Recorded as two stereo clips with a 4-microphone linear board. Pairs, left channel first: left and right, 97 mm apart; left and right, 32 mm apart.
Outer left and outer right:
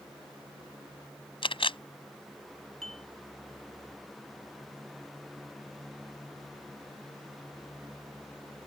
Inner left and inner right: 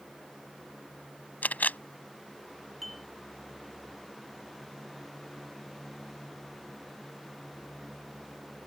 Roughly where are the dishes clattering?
Centre.